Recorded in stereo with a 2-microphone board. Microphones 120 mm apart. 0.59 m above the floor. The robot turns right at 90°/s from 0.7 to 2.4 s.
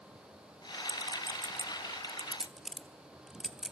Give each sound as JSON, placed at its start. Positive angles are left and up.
{"t": 0.9, "sound": "a clink", "side_deg": -25, "distance_m": 0.8}